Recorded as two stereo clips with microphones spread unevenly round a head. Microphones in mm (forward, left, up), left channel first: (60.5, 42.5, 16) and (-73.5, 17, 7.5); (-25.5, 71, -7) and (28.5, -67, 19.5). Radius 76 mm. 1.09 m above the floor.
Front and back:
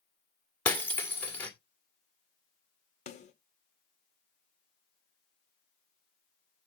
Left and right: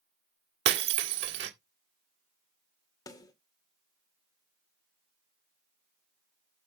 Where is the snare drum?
45° left, 2.5 m.